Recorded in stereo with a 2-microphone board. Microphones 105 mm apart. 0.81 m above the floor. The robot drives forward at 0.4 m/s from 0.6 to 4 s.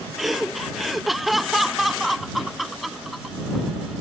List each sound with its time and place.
0.2 s laughter: 5° right (ahead or behind); by 3.4 s centre (ahead or behind)